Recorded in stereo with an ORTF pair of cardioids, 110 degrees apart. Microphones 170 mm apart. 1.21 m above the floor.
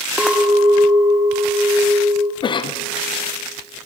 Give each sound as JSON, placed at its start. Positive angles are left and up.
{"t": 0.2, "sound": "a clink", "azimuth_deg": -5, "distance_m": 0.7}
{"t": 2.4, "sound": "a cough", "azimuth_deg": 30, "distance_m": 0.6}